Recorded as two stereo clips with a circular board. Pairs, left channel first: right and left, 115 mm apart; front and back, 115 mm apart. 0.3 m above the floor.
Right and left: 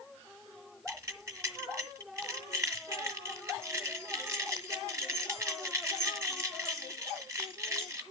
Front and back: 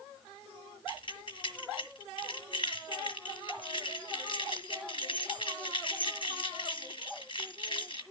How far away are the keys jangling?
About 1.4 m.